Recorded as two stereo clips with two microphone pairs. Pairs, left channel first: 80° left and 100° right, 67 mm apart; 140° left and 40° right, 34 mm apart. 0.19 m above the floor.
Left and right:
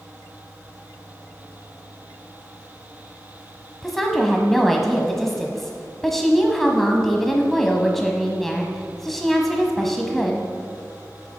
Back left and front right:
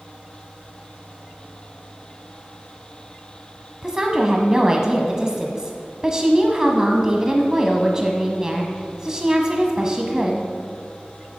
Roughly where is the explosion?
No explosion in this recording.